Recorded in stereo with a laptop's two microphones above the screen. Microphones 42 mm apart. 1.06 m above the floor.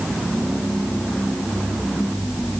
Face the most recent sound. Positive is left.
No sound to turn to.